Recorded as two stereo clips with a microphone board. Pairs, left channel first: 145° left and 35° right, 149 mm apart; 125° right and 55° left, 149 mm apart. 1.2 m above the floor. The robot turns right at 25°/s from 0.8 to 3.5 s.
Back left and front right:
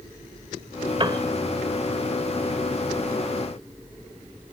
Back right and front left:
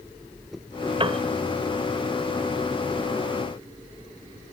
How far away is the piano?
About 1.3 m.